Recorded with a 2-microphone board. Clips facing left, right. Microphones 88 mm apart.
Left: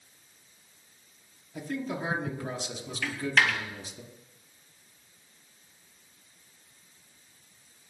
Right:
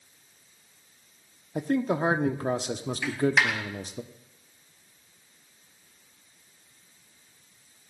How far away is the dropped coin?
About 1.9 m.